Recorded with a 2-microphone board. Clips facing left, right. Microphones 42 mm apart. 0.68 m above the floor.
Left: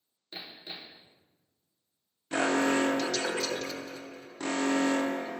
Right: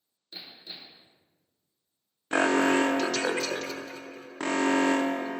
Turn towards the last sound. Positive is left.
turn(degrees=-50)  # may be behind; listen again after turning